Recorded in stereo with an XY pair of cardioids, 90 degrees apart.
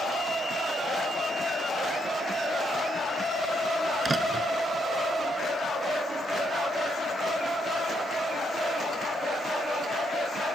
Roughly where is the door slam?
Ahead right.